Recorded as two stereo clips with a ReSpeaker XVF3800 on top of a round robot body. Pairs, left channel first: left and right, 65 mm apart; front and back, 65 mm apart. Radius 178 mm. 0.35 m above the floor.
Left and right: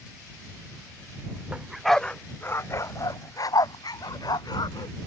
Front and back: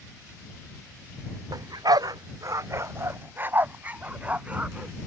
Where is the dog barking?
165° right; by 5.0 s 105° left.